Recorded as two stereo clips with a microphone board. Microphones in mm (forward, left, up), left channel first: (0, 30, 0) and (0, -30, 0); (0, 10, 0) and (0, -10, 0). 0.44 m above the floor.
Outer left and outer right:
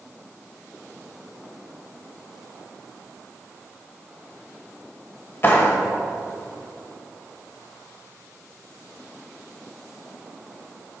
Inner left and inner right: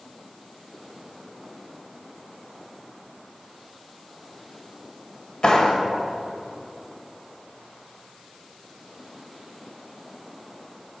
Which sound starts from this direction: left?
A clap, at 5.4 s.